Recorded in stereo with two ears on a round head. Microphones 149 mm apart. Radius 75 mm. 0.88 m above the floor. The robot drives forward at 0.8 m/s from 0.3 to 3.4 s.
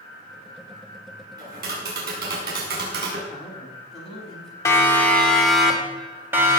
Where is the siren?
20° left (ahead or behind), 2.5 m; by 6.6 s 20° right (ahead or behind), 3 m.